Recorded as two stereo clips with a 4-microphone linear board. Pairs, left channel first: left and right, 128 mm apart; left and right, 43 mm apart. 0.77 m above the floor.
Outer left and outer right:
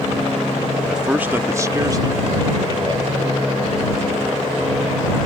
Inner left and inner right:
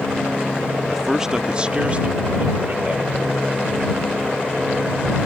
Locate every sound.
0.9 s a man speaking: centre (ahead or behind); by 3.3 s 40° right (ahead or behind)